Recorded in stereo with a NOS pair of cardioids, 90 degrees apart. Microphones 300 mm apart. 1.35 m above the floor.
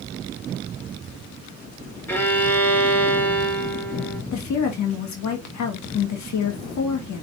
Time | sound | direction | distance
2.1 | a violin | 5° left | 3.5 m
4.3 | a woman speaking | 65° left | 2.5 m